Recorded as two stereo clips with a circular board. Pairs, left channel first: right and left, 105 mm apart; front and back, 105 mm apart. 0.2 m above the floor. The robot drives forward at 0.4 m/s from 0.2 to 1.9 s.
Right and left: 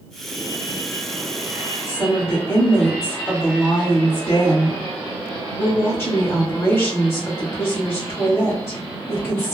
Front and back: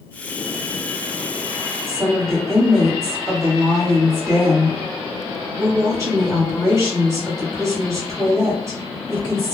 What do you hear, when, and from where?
1.9 s a woman speaking: 140° right, 1.8 m